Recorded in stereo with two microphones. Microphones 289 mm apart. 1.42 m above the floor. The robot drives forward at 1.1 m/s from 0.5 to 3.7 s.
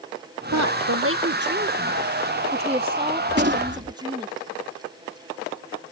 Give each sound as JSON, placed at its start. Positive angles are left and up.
{"t": 0.5, "sound": "a woman speaking", "side_deg": -70}
{"t": 3.3, "sound": "a gunshot", "side_deg": -35}